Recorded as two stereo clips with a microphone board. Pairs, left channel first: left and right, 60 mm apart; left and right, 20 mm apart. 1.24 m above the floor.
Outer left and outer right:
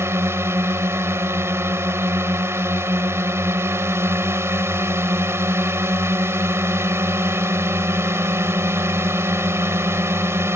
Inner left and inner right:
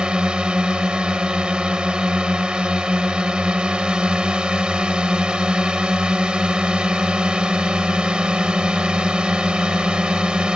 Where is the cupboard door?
No cupboard door in this recording.